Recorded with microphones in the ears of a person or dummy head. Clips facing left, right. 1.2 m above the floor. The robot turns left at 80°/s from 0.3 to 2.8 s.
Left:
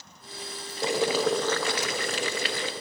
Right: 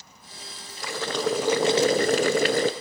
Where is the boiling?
35° left, 0.7 m; by 2.7 s 115° right, 0.7 m.